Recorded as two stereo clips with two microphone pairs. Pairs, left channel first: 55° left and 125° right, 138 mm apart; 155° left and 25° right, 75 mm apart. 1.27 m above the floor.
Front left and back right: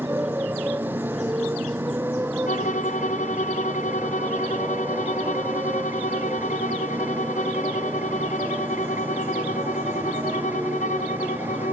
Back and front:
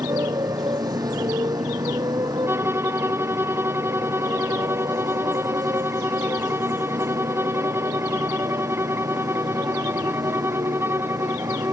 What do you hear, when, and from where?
0.0 s a motorcycle: 45° right
2.5 s a violin: 35° left